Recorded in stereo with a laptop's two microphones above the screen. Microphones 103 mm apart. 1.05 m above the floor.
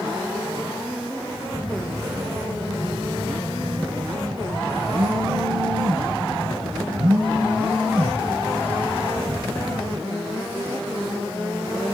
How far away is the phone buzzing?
About 6 m.